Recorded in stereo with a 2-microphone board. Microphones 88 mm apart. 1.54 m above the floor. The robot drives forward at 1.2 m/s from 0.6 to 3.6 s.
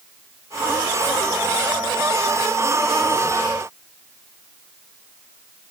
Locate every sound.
Only background noise.